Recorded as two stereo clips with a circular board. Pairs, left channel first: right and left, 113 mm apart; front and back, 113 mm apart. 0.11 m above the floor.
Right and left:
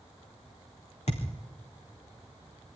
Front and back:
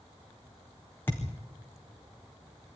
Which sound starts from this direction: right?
A thud, at 1.1 s.